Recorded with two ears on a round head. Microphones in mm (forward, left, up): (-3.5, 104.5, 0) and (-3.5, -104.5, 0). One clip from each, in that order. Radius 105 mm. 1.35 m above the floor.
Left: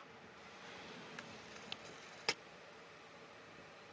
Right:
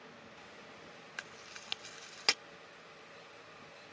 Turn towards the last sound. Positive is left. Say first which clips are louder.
# right 5 dB
turn(degrees=-45)  # may be behind; listen again after turning